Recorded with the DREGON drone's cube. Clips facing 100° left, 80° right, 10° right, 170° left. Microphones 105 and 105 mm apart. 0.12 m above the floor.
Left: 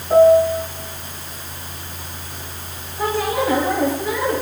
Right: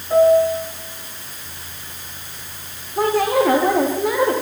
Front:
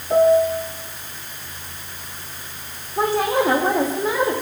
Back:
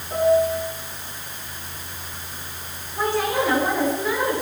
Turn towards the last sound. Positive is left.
turn(degrees=-65)